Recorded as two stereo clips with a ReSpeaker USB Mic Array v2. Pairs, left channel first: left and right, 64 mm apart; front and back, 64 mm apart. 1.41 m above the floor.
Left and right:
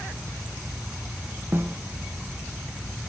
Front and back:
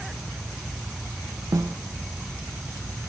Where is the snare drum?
145° right, 0.8 m.